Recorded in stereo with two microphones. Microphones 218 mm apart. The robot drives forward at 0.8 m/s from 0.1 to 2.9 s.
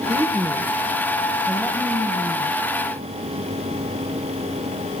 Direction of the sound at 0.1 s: 10° right (ahead or behind).